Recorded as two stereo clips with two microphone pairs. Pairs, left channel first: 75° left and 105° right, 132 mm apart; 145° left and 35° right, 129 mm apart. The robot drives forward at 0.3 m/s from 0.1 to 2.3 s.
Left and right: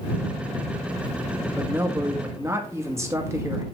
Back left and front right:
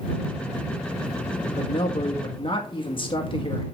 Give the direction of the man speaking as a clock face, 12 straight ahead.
6 o'clock.